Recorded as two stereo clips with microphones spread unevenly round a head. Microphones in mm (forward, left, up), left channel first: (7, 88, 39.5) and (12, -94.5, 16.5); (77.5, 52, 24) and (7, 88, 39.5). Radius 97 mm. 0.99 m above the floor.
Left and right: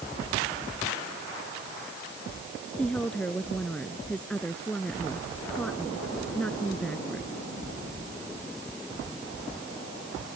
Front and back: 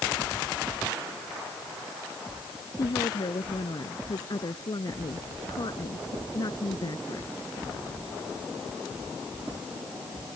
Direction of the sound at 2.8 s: 5° left.